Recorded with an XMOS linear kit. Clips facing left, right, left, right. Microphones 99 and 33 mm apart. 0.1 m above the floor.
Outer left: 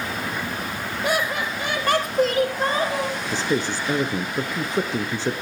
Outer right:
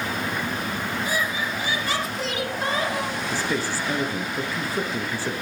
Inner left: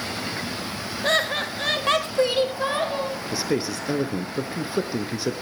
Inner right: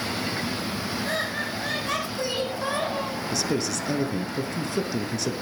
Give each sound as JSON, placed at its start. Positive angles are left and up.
{"t": 1.0, "sound": "laughter", "side_deg": 65, "distance_m": 2.5}
{"t": 3.3, "sound": "a man speaking", "side_deg": 20, "distance_m": 1.3}